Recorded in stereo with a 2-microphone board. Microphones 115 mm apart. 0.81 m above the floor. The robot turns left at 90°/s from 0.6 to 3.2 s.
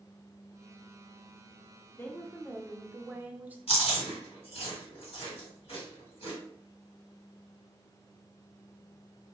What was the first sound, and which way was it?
A woman speaking, 20° left (ahead or behind).